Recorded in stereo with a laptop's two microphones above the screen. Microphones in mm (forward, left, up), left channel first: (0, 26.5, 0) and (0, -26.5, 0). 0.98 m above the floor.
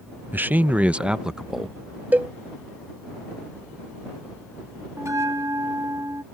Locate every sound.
0.3 s a man speaking: 35° right (ahead or behind); by 2.0 s centre (ahead or behind)
2.1 s a cowbell: 35° right (ahead or behind)
5.0 s a bell: 65° right (ahead or behind)